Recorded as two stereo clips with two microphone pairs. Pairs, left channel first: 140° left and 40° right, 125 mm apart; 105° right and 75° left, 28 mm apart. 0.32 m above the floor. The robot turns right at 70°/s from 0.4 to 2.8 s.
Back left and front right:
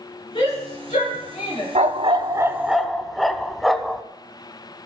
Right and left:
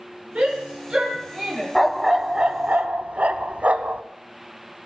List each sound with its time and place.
0.3 s a shout: 100° left, 5 m; by 1.6 s 170° right, 5 m
1.8 s a dog barking: 25° right, 0.5 m; by 4.0 s 50° left, 0.5 m